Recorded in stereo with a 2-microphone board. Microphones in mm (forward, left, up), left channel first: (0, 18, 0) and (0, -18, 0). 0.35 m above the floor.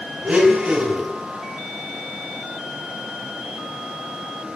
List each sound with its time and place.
0.2 s a blender: 30° right (ahead or behind), 2 m